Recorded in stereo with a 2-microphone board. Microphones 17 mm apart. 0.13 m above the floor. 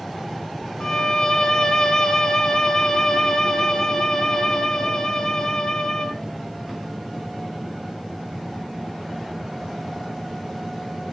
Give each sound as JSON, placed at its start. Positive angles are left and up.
{"t": 0.8, "sound": "a violin", "side_deg": 35, "distance_m": 0.5}